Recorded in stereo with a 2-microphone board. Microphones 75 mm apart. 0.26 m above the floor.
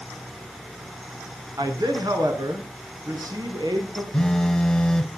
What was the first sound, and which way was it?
A man speaking, 65° right (ahead or behind).